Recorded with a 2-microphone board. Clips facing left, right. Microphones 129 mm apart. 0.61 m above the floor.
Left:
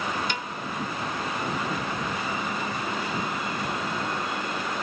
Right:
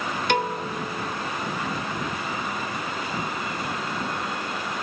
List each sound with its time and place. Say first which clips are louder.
0.3 s a piano: right 8 dB; 65° right (ahead or behind)